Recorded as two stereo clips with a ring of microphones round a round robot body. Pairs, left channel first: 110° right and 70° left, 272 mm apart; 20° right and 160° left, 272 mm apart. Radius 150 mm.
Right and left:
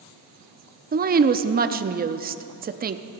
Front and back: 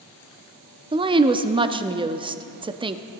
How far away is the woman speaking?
About 0.7 m.